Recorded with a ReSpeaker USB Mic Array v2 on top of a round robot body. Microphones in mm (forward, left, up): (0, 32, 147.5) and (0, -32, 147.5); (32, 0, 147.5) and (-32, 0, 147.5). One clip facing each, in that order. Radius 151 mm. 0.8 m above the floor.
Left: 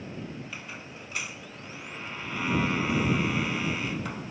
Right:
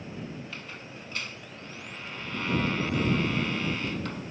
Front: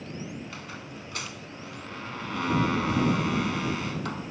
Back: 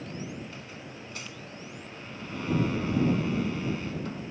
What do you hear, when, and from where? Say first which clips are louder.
0.5 s a squeak: left 1 dB, front 3 dB; 10° left